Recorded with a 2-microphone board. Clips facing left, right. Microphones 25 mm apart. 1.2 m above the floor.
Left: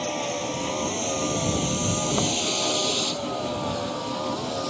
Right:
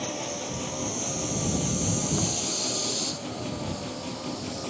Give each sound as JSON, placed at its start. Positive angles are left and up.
{"t": 0.0, "sound": "a vehicle", "side_deg": 35}